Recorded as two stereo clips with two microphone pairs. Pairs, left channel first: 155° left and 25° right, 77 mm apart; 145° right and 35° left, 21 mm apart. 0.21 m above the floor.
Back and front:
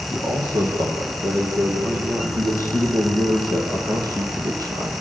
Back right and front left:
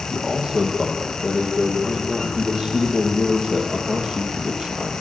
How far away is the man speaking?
About 6.5 m.